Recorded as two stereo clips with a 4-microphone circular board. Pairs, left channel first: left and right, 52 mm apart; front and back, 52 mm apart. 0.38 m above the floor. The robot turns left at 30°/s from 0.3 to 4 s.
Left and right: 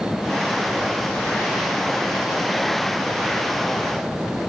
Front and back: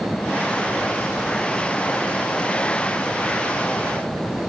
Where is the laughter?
I don't hear laughter.